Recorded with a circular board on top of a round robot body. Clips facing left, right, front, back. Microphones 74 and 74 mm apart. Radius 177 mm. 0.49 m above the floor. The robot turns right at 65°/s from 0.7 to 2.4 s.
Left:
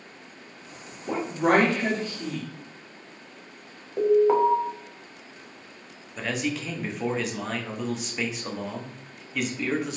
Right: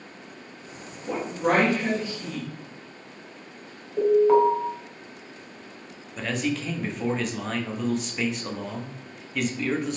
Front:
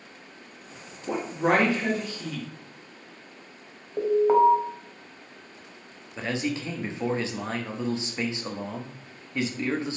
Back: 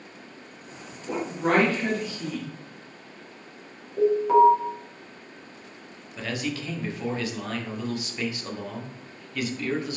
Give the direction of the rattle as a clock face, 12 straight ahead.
I don't hear a rattle.